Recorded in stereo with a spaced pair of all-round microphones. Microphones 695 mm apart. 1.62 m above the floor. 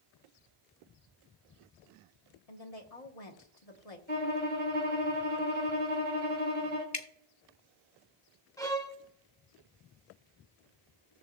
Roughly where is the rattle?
I don't hear a rattle.